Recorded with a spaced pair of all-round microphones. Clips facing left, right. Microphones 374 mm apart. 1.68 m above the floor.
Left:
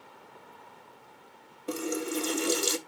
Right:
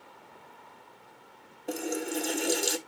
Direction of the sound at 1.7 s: 10° left (ahead or behind).